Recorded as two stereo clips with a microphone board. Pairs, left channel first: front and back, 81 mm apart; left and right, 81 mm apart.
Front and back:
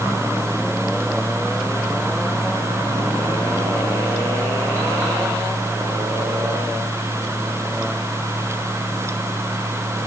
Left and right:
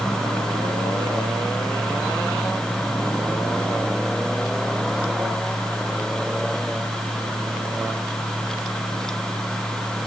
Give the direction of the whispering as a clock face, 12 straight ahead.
No whispering in this recording.